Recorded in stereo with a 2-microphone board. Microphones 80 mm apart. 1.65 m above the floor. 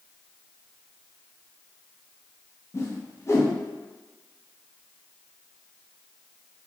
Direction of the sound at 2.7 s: 40° left (ahead or behind).